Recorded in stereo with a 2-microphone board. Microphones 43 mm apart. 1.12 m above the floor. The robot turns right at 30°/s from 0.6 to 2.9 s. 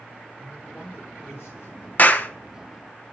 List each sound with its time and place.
0.4 s a man speaking: 40° left, 5 m; by 1.9 s 80° left, 5 m
2.0 s a clap: 40° left (ahead or behind), 0.5 m; by 2.3 s 50° left (ahead or behind), 0.5 m